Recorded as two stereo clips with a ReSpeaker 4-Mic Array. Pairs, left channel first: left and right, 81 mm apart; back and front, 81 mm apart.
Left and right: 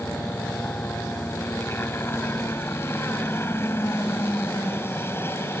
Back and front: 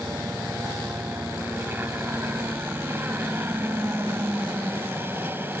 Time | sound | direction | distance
0.0 | a helicopter | 50° left | ?